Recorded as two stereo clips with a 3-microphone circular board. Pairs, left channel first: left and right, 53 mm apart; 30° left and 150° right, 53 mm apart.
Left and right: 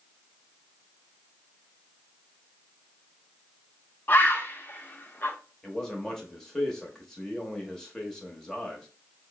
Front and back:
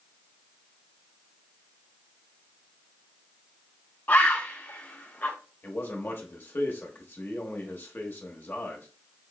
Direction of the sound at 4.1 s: 65° left.